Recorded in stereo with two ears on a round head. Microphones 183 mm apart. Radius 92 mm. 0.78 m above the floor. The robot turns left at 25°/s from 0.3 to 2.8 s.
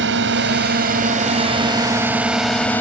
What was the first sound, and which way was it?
A drone, 60° right (ahead or behind).